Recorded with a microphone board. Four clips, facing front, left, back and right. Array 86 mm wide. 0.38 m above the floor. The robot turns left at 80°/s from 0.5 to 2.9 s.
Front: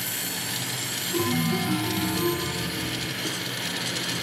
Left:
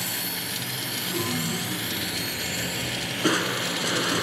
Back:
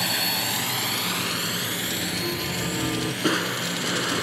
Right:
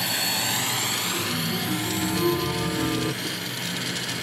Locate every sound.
0.0 s a drone: 155° right; by 4.2 s 105° left
1.1 s a chime: 20° left; by 3.1 s 120° right
3.2 s crushing: 130° left